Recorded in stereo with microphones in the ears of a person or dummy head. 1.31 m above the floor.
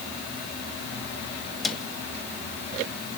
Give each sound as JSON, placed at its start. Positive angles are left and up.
{"t": 1.6, "sound": "a cupboard door", "side_deg": 0, "distance_m": 1.7}